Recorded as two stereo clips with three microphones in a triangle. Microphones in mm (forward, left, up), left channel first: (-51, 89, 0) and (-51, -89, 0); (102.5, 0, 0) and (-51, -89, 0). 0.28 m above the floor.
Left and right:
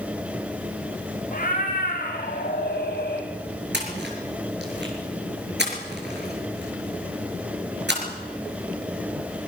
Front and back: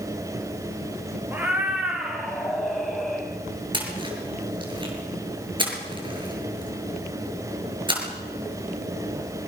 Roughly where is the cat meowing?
Behind left.